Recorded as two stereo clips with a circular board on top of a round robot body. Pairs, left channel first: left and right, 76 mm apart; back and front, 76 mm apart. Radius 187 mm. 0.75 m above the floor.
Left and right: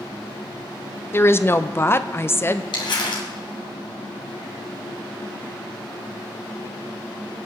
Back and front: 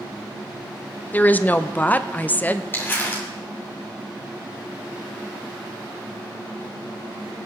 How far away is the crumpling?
About 2.5 m.